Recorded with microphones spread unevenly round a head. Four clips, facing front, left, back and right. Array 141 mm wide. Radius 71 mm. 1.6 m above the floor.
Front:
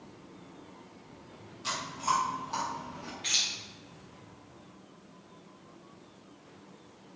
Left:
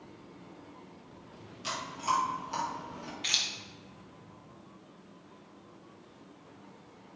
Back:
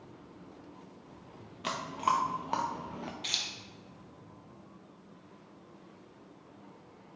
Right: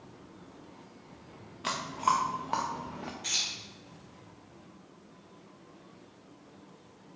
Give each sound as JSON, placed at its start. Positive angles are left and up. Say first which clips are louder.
{"t": 1.6, "sound": "chewing", "louder": "right 4 dB, back 1 dB", "azimuth_deg": -130, "distance_m": 0.6}
{"t": 3.2, "sound": "keys jangling", "louder": "left 2 dB, front 2 dB", "azimuth_deg": 110, "distance_m": 0.7}